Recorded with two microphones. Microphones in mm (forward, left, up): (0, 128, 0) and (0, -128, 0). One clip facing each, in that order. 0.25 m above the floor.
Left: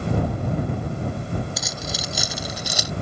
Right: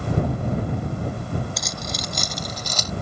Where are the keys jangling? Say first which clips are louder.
Even; 5° left (ahead or behind); by 2.9 s 10° left (ahead or behind).